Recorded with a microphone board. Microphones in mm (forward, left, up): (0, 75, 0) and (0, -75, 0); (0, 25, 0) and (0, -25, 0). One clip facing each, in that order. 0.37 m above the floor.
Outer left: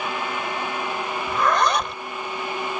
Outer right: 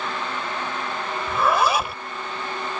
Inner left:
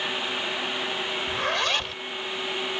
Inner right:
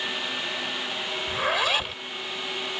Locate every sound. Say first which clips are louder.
1.3 s a zipper: outer right 1 dB, inner right 2 dB; 5° right (ahead or behind)